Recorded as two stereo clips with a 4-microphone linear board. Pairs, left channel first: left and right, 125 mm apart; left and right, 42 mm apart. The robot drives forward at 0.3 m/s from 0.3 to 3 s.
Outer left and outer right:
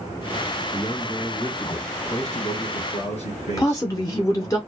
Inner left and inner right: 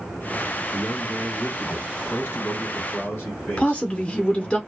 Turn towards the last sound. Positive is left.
turn(degrees=25)  # may be behind; listen again after turning